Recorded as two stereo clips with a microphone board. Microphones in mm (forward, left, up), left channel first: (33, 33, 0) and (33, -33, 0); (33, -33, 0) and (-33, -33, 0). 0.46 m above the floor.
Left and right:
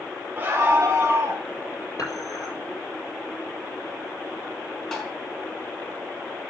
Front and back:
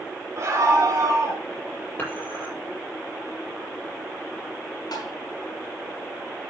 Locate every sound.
0.4 s a scream: 150° right, 2 m; by 1.4 s 140° right, 3 m
2.0 s dishes clattering: 60° left, 8.5 m
4.9 s tapping: 10° left, 6 m